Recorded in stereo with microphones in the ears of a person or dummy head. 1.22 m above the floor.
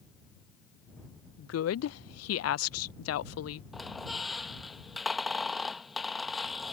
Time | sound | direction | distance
1.4 | a woman speaking | 70° left (ahead or behind) | ?
3.7 | a squeak | 5° left (ahead or behind) | ?